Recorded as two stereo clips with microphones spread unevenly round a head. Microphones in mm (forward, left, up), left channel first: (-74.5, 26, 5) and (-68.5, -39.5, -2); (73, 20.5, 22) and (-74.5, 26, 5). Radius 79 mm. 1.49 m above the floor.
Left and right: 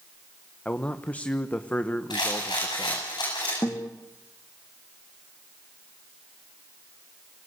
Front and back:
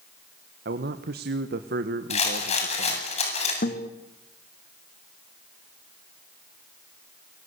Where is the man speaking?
165° left, 1.4 m.